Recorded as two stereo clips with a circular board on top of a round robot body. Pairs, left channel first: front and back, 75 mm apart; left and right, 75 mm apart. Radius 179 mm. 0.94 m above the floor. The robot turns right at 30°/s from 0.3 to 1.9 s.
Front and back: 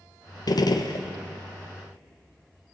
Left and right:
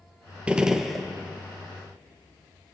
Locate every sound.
0.5 s a gunshot: 15° right, 1.4 m; by 1.1 s straight ahead, 1.4 m